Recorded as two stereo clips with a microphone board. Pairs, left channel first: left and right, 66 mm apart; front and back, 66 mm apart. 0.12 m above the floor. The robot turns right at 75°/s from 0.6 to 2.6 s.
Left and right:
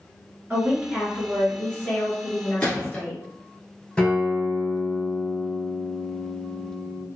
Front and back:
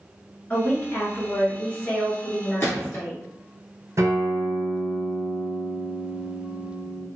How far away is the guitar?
About 1.0 m.